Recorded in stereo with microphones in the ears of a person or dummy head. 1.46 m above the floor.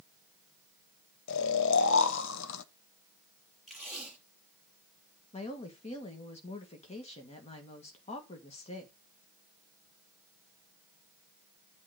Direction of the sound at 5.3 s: 30° left (ahead or behind).